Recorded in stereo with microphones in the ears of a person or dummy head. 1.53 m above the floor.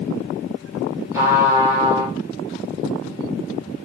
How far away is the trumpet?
About 0.9 m.